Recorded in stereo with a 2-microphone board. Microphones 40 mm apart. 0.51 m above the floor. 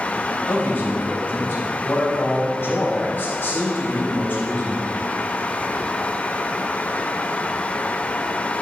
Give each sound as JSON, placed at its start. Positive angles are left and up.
{"t": 0.5, "sound": "a man speaking", "side_deg": 55, "distance_m": 3.0}